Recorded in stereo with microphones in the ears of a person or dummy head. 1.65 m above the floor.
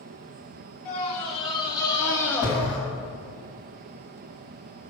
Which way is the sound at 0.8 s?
35° left (ahead or behind).